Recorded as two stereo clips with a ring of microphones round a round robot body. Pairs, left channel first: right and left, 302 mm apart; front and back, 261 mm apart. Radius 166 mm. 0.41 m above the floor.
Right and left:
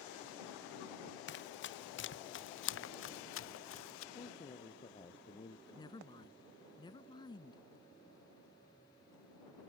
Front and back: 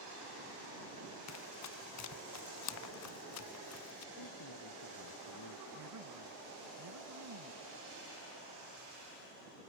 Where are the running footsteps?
35° right; by 4.0 s 40° right.